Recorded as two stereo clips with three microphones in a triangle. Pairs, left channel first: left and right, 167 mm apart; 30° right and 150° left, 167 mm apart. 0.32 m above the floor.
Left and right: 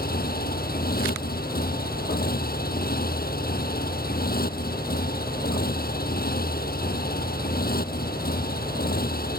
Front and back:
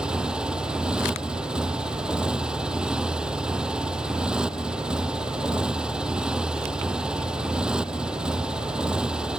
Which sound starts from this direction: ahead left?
A motorcycle, at 0.0 s.